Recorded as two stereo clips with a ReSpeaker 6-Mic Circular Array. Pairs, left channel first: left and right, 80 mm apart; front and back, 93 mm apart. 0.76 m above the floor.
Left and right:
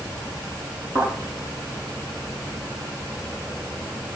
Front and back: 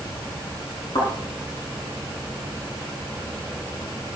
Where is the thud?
45° right, 9.5 m.